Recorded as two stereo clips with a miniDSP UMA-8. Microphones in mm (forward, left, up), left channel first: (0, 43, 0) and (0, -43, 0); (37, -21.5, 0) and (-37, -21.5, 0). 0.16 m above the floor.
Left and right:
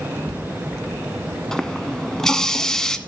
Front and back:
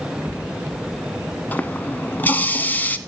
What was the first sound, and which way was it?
A running tap, 15° left.